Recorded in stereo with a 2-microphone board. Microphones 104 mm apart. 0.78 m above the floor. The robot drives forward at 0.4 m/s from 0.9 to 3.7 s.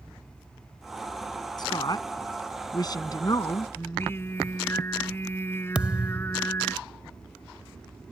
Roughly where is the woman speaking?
Left.